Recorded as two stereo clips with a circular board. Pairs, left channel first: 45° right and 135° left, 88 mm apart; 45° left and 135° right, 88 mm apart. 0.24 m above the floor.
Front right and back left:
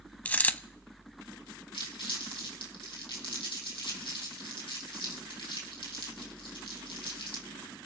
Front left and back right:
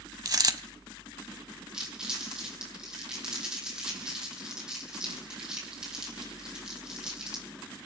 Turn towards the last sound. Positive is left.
turn(degrees=-55)